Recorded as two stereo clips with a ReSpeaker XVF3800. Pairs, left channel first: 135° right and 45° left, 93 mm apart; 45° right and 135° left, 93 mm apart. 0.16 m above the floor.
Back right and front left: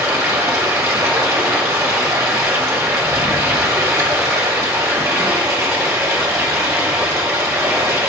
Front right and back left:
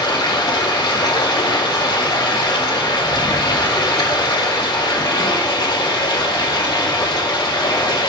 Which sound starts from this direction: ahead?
Running water, at 0.0 s.